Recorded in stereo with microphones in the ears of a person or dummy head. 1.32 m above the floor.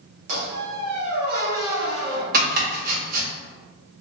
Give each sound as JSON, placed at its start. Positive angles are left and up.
{"t": 0.3, "sound": "a squeak", "side_deg": -45, "distance_m": 1.2}
{"t": 2.3, "sound": "chopping", "side_deg": -55, "distance_m": 1.3}